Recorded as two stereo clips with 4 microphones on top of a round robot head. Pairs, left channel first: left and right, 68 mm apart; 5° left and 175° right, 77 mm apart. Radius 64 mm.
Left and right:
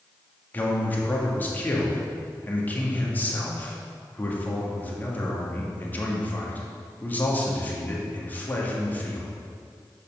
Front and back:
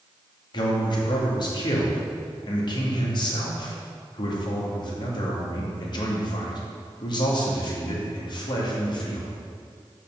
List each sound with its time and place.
0.5 s a man speaking: 25° left, 2.5 m